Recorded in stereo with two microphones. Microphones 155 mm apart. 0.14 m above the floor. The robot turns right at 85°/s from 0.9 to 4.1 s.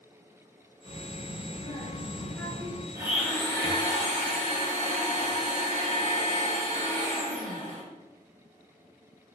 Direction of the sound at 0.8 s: 120° right.